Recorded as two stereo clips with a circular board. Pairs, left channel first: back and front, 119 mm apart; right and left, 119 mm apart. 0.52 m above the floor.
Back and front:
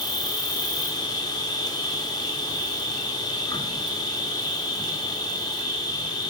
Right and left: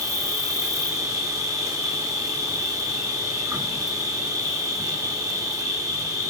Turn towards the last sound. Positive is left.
turn(degrees=140)